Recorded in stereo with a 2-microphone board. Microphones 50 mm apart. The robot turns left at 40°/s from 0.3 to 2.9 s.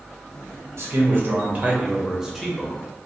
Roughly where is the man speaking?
Behind right.